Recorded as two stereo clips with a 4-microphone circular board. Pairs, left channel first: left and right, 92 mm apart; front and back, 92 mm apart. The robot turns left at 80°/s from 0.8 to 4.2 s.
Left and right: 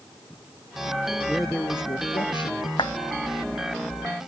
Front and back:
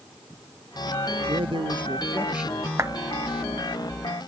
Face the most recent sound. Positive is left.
turn(degrees=10)